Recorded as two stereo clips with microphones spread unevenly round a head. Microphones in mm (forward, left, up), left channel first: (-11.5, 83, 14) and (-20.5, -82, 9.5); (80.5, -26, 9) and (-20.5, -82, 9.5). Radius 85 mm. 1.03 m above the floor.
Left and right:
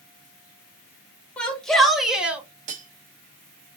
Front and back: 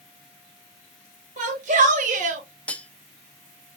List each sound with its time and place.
1.4 s a shout: 170° left, 1.7 m; by 2.4 s 175° right, 1.1 m
2.7 s cutlery clinking: 50° right, 0.7 m